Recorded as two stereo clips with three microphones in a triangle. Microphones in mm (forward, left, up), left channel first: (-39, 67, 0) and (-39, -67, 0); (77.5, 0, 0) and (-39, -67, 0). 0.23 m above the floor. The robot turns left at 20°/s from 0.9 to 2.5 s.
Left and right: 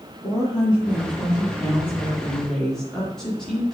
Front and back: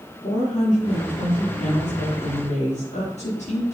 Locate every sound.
0.2 s a woman speaking: 35° left, 3.5 m; by 3.7 s 5° left, 3.5 m